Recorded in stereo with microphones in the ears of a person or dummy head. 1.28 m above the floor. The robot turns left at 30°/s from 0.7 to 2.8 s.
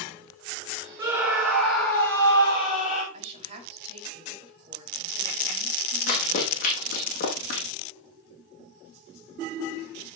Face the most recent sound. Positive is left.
turn(degrees=50)  # may be behind; listen again after turning